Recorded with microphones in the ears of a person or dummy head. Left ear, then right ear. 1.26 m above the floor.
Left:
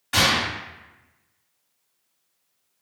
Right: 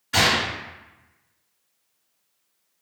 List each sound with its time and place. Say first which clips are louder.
0.1 s a gunshot: even; 35° left (ahead or behind), 1.4 m